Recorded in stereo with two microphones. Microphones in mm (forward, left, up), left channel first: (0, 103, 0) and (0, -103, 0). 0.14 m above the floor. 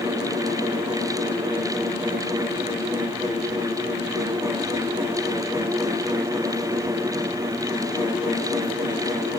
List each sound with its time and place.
Only background noise.